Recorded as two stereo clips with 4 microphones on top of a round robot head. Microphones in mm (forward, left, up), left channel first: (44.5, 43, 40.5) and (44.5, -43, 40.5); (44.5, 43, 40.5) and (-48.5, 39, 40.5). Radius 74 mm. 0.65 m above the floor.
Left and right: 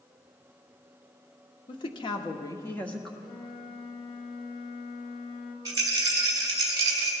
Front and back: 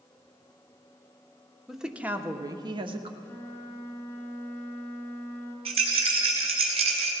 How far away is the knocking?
I don't hear knocking.